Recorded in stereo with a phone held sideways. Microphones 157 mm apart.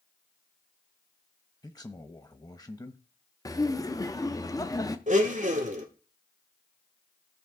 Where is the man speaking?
25° left (ahead or behind), 0.9 m.